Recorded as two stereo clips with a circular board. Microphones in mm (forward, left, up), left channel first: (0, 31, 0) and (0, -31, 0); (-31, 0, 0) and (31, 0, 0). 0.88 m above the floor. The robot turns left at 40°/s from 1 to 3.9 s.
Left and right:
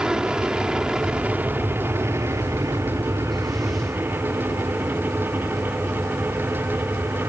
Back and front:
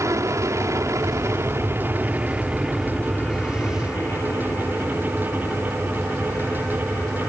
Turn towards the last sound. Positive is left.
turn(degrees=-130)